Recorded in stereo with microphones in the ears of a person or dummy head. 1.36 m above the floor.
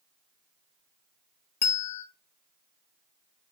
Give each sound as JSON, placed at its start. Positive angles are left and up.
{"t": 1.6, "sound": "a bell", "side_deg": 10, "distance_m": 0.7}